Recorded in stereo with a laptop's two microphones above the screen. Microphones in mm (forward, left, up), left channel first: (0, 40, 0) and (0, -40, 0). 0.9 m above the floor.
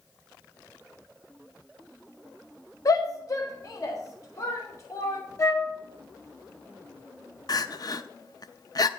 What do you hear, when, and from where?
2.9 s a shout: 45° left (ahead or behind), 0.8 m; by 5.2 s 40° left (ahead or behind), 2.5 m
5.4 s a flute: 45° left (ahead or behind), 1.0 m
7.5 s crying: 50° left (ahead or behind), 0.5 m